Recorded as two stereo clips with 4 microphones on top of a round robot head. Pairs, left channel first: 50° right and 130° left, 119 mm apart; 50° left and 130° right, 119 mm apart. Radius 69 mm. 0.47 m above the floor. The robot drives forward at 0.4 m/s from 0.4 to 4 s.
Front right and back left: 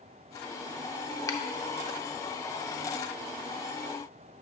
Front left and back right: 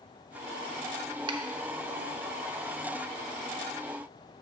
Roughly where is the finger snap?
Right.